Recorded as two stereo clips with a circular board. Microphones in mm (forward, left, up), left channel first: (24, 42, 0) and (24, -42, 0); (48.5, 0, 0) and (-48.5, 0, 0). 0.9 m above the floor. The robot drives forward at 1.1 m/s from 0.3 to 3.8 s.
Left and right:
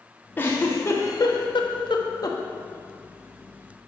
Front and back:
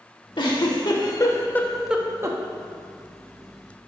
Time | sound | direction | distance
0.4 | a giggle | 25° left | 1.8 m